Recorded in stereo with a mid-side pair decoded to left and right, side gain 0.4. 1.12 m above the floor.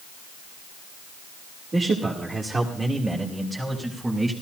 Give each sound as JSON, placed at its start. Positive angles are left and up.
{"t": 1.7, "sound": "a man speaking", "azimuth_deg": -45, "distance_m": 3.0}